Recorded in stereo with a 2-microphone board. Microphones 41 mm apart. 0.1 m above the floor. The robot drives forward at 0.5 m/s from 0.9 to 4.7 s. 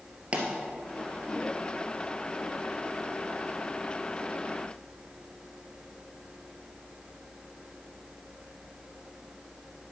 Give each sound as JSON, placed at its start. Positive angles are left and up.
{"t": 0.3, "sound": "a pop", "side_deg": -30, "distance_m": 2.0}